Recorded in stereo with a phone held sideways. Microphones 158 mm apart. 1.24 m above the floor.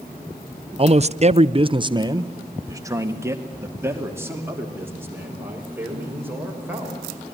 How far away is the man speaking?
About 0.7 m.